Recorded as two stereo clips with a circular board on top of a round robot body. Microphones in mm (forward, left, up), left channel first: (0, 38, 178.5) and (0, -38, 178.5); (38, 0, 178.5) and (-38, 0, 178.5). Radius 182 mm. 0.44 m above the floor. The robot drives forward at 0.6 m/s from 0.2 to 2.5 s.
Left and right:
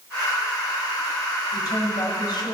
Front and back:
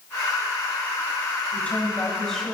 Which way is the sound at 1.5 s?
65° left.